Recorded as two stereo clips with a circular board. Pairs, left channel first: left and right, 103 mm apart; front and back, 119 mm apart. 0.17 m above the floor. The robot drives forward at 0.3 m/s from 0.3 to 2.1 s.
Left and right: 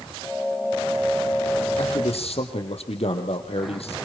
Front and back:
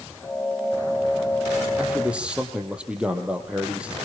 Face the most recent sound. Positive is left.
turn(degrees=100)